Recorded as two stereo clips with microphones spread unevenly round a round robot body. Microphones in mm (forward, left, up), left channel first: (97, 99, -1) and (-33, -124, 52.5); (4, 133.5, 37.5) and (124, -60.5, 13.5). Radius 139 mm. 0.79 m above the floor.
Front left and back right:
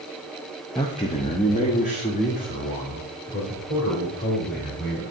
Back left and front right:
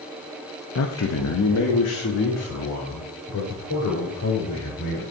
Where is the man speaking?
130° left, 0.6 m; by 5.0 s 115° left, 3.5 m.